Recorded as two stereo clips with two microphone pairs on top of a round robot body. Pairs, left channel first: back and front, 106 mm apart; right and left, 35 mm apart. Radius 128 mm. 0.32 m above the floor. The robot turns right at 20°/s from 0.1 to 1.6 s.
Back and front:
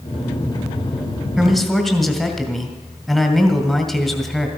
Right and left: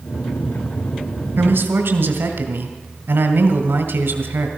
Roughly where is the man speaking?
Left.